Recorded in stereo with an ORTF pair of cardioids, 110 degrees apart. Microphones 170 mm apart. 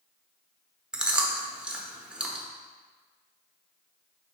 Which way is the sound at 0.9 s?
5° right.